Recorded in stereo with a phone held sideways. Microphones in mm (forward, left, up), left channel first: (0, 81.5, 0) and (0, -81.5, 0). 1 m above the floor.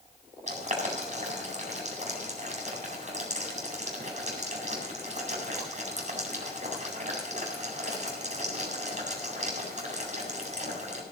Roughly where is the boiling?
Right.